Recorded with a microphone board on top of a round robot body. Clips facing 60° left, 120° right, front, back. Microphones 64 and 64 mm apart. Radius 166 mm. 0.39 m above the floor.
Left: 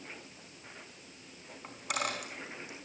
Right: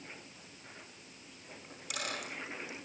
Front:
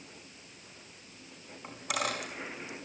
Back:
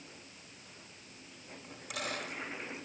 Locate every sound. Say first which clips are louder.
1.6 s a dropped coin: left 6 dB, front 7 dB; 15° left, 4.5 m